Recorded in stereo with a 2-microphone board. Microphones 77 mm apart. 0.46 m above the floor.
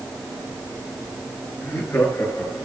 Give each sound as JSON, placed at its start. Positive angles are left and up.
{"t": 1.6, "sound": "laughter", "side_deg": 35, "distance_m": 6.5}